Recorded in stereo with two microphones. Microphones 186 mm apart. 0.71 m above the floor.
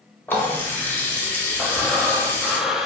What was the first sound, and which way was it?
A running tap, 10° left (ahead or behind).